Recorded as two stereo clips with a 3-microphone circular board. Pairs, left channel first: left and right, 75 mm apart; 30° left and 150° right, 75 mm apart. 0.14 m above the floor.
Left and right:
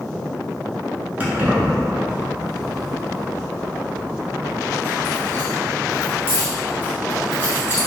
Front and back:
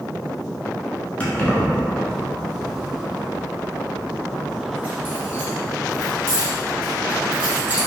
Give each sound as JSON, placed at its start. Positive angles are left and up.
{"t": 1.2, "sound": "keys jangling", "azimuth_deg": -35, "distance_m": 1.2}